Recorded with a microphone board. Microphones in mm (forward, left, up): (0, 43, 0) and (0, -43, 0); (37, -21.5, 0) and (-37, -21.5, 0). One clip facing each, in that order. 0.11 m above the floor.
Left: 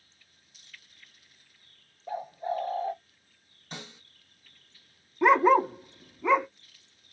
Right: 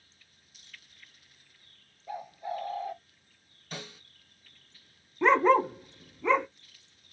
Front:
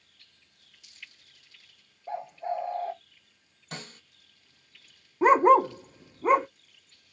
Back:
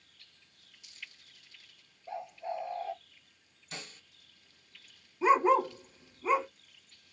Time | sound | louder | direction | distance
2.1 | a bird | left 4 dB, front 6 dB | 45° left | 0.7 m
3.7 | a snare drum | right 1 dB, front 4 dB | 30° left | 1.7 m
5.2 | a dog barking | left 2 dB, front 6 dB | 10° left | 0.5 m